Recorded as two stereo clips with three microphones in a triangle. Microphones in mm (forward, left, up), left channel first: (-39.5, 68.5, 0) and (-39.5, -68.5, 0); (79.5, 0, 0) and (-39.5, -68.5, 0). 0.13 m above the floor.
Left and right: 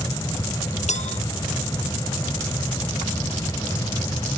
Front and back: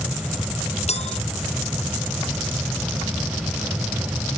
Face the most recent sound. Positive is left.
turn(degrees=65)